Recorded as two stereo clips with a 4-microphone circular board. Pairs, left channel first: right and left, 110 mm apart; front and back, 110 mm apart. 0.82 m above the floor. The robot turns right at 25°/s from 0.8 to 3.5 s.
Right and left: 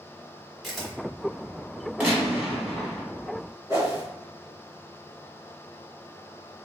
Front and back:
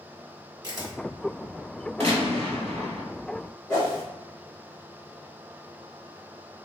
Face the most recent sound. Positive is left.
turn(degrees=50)